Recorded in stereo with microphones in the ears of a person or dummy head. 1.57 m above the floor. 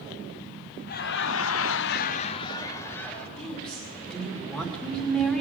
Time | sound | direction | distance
0.9 | laughter | 55° left (ahead or behind) | 0.9 m
3.4 | a woman speaking | 10° left (ahead or behind) | 2.5 m